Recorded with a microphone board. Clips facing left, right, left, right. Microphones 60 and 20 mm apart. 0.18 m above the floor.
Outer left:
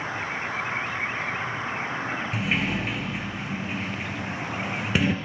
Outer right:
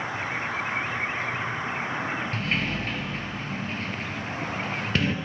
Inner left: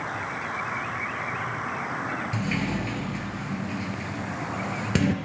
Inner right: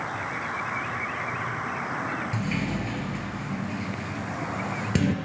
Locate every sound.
2.3 s a sliding door: 10° left (ahead or behind), 1.3 m